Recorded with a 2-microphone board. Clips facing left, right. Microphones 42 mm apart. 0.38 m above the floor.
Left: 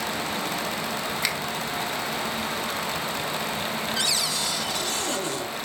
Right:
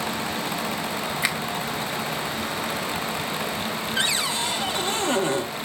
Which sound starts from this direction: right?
A cupboard door, at 4.0 s.